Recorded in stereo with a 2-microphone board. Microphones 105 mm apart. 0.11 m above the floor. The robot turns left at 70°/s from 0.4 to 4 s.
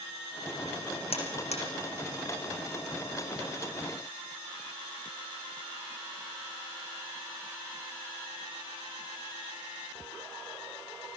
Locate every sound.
1.1 s a buzzer: 65° left (ahead or behind), 6.5 m; by 1.6 s 75° left (ahead or behind), 6.5 m